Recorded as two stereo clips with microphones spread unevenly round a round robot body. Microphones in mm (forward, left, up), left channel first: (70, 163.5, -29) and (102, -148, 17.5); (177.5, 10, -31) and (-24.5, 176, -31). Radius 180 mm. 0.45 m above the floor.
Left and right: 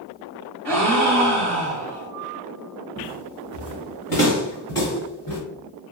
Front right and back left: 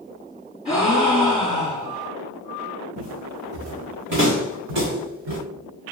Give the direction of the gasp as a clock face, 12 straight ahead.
4 o'clock.